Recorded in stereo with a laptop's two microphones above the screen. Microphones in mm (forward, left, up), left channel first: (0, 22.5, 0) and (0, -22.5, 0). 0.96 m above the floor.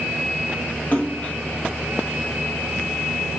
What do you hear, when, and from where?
0.9 s a splash: 30° left (ahead or behind), 1.0 m